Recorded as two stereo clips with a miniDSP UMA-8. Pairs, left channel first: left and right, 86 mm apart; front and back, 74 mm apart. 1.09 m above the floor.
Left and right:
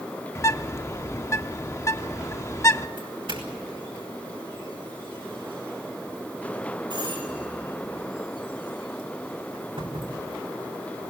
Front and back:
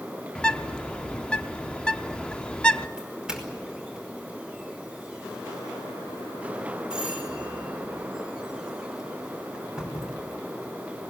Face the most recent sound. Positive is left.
turn(degrees=-100)